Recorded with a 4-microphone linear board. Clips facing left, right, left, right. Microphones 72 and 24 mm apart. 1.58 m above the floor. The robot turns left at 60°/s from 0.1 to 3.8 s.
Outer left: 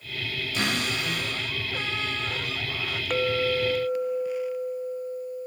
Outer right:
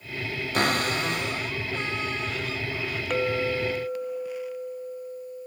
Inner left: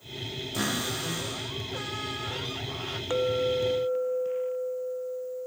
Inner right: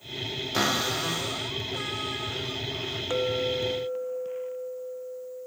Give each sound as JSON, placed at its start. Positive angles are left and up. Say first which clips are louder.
{"t": 0.5, "sound": "a cupboard door", "louder": "outer right 4 dB, inner right 4 dB", "azimuth_deg": -120, "distance_m": 3.5}
{"t": 3.1, "sound": "a clink", "louder": "outer left 1 dB, inner left 2 dB", "side_deg": 0, "distance_m": 0.6}